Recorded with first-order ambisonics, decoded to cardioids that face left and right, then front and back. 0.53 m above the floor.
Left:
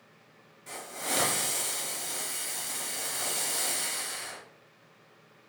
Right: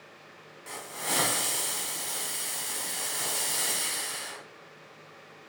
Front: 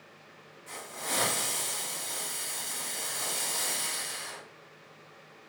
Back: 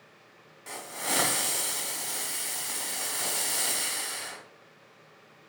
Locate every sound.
0.7 s a hiss: 150° right, 1.3 m